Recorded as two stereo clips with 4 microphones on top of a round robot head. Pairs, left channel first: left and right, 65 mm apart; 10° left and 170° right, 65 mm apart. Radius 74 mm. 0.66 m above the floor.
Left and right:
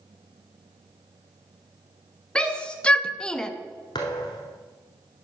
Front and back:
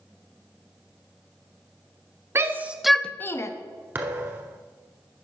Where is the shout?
160° left, 0.8 m; by 3.5 s 15° left, 0.8 m.